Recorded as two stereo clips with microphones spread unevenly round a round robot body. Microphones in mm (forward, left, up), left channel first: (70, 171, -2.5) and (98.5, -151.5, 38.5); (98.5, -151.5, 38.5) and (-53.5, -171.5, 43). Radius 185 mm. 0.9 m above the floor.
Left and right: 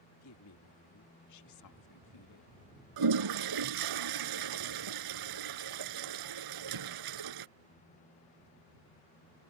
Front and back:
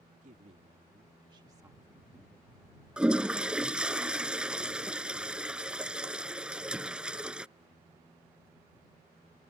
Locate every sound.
0.1 s a woman speaking: 140° left; by 2.6 s 85° left
3.0 s a toilet flushing: 90° right